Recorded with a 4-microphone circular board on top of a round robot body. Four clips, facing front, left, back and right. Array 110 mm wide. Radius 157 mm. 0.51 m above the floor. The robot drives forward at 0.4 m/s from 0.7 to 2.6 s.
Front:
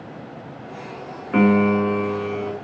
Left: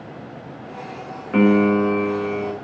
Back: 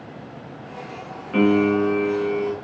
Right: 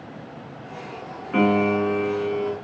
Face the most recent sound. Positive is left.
turn(degrees=110)